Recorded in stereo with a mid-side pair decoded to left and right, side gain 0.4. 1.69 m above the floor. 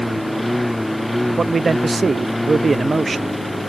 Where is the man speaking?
35° right.